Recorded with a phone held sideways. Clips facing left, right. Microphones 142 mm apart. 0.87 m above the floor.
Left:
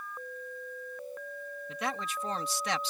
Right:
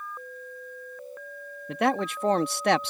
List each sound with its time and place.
1.7 s a man speaking: 65° right (ahead or behind)